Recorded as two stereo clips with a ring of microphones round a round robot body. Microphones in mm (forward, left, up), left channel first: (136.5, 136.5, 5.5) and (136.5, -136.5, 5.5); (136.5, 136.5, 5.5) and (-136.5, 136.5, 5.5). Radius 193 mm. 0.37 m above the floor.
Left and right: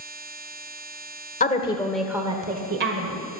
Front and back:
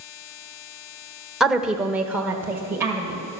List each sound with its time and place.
1.4 s a woman speaking: 95° left, 1.5 m; by 3.2 s 100° right, 2 m